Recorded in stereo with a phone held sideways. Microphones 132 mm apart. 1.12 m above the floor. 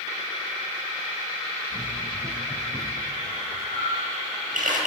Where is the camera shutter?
85° right, 9.5 m.